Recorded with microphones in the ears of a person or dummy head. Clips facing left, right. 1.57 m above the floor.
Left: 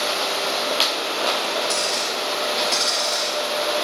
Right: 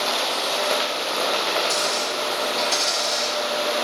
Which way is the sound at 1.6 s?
10° right (ahead or behind).